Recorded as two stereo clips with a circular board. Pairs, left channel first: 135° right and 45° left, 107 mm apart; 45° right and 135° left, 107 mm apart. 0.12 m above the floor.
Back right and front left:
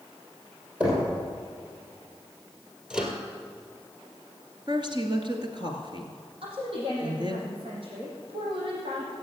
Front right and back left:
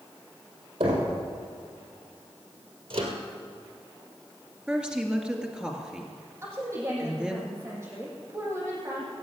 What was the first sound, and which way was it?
Knocking, 120° left.